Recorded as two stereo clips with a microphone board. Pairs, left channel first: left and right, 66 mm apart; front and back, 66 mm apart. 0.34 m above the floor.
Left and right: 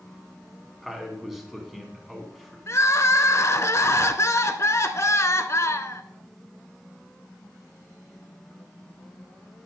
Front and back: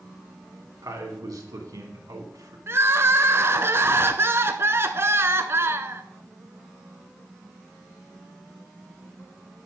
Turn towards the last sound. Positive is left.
turn(degrees=130)